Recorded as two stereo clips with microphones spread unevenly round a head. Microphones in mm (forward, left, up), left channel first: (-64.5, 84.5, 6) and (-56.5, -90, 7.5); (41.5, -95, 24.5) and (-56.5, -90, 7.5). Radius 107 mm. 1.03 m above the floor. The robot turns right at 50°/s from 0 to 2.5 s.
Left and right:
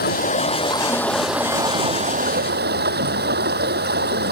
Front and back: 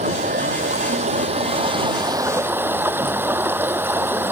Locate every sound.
0.0 s running water: 120° left; by 4.3 s 115° right